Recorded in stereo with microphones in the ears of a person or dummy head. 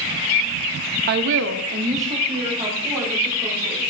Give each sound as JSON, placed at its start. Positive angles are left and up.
{"t": 1.1, "sound": "a woman speaking", "side_deg": -55, "distance_m": 0.6}